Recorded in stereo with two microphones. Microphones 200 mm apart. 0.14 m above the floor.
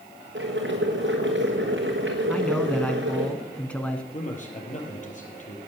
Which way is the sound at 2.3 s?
5° left (ahead or behind).